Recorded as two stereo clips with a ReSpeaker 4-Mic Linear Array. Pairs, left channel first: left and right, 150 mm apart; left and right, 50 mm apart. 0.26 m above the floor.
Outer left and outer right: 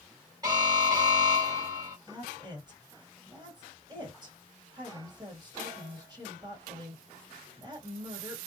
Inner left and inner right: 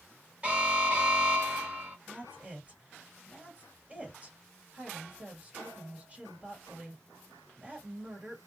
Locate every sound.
0.4 s an alarm: 25° right (ahead or behind), 1.9 m
2.1 s a woman speaking: 30° right (ahead or behind), 1.7 m